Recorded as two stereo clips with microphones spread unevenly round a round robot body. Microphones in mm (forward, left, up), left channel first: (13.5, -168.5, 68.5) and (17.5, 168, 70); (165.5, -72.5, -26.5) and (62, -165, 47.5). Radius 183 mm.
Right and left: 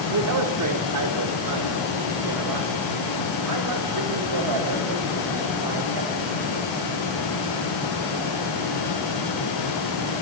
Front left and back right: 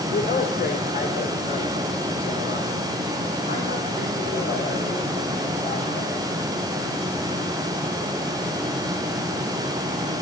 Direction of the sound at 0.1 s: 50° left.